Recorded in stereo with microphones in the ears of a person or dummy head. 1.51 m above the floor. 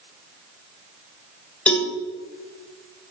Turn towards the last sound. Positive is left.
turn(degrees=5)  # may be behind; listen again after turning